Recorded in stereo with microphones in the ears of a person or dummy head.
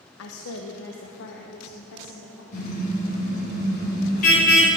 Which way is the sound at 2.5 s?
50° left (ahead or behind).